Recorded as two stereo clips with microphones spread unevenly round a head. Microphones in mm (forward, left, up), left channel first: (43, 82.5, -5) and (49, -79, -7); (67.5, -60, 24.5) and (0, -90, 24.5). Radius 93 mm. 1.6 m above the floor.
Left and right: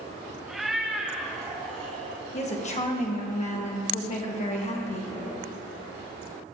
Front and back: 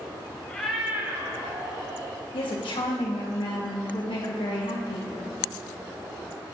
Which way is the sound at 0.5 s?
Straight ahead.